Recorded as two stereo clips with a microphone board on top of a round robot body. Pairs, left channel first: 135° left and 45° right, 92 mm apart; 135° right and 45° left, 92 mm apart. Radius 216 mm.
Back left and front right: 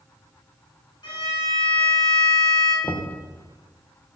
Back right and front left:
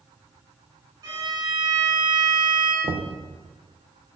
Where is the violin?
90° left, 4.5 m.